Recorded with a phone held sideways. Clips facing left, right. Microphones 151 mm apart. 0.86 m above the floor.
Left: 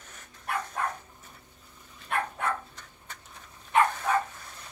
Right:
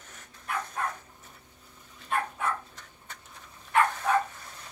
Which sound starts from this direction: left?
A dog barking, at 0.5 s.